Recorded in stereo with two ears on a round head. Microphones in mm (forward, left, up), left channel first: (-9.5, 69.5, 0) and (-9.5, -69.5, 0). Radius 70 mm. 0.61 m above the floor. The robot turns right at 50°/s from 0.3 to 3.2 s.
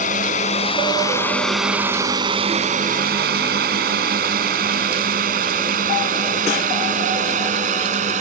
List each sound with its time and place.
0.0 s a drone: 55° left (ahead or behind); by 8.2 s 50° right (ahead or behind)